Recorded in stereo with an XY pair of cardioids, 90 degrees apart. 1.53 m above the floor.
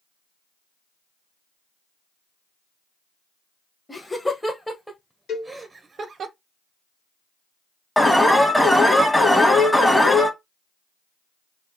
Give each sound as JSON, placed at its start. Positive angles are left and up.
{"t": 3.9, "sound": "laughter", "azimuth_deg": 15, "distance_m": 1.7}
{"t": 5.3, "sound": "a cowbell", "azimuth_deg": 70, "distance_m": 2.5}
{"t": 8.0, "sound": "an alarm", "azimuth_deg": 10, "distance_m": 1.7}